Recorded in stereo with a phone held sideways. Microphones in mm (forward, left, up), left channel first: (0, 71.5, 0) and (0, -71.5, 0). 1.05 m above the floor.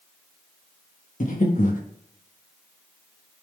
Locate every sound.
1.2 s breathing: 65° left (ahead or behind), 1.3 m